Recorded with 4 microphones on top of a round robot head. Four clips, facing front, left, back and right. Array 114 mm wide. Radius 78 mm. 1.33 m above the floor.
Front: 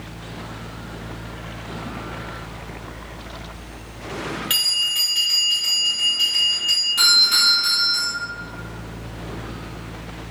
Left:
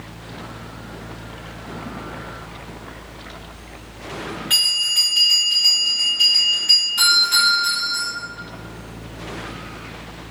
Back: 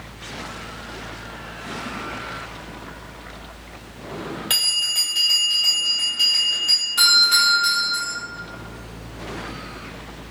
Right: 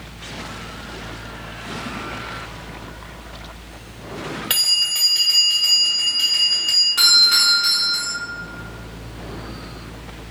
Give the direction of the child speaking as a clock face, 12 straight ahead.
No child speaking in this recording.